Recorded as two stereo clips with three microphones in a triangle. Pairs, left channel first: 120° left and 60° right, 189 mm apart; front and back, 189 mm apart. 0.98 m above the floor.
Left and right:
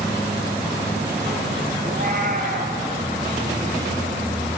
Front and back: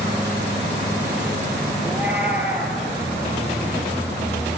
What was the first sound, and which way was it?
A cat meowing, 95° right.